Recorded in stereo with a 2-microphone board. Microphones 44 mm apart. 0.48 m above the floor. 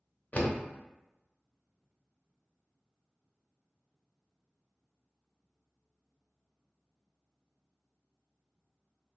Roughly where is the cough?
No cough in this recording.